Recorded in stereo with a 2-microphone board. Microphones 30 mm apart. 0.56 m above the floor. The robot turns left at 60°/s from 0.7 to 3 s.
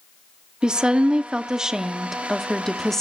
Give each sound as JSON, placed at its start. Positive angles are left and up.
{"t": 0.6, "sound": "a woman speaking", "side_deg": -25, "distance_m": 0.7}